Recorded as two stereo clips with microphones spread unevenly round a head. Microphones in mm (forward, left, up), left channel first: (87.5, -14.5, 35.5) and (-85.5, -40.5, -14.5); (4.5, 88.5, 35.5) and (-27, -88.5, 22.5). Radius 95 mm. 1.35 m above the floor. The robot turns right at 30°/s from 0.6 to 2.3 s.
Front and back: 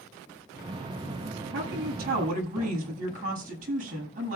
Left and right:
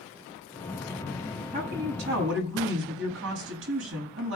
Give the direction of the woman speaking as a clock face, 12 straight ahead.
5 o'clock.